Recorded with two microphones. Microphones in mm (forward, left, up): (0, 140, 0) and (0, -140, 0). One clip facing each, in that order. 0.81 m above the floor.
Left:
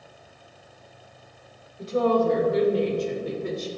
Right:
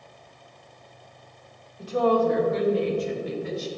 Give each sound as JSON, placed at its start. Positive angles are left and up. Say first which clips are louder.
{"t": 1.8, "sound": "a woman speaking", "louder": "even", "side_deg": 25, "distance_m": 2.5}